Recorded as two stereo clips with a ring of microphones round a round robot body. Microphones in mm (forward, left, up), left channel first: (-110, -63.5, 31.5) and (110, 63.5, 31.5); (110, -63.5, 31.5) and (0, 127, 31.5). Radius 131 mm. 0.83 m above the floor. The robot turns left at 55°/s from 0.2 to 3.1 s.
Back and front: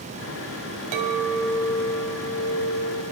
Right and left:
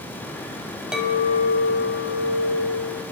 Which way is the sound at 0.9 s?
35° left.